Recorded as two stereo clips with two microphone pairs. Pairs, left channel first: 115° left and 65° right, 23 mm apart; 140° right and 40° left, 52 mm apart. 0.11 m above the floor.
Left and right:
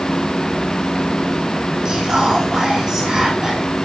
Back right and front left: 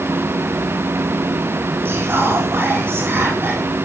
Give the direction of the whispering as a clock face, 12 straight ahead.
12 o'clock.